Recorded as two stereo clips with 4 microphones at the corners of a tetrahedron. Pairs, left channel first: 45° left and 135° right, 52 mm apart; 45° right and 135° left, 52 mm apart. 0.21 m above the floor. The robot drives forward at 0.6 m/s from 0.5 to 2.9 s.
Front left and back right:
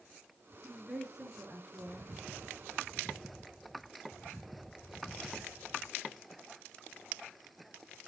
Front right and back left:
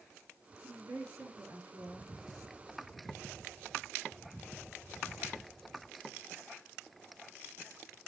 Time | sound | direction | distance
0.6 | a woman speaking | 150° left | 4 m